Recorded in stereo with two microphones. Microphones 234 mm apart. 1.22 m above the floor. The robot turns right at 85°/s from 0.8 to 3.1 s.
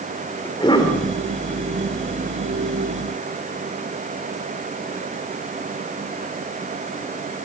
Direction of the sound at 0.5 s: 20° left (ahead or behind).